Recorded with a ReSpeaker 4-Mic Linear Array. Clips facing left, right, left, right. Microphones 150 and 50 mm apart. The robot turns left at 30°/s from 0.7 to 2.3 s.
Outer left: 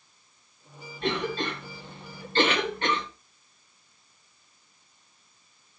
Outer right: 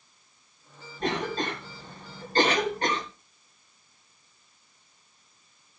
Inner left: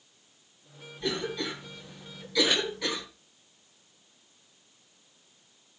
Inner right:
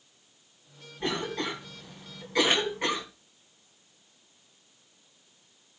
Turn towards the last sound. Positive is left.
turn(degrees=-40)  # may be behind; listen again after turning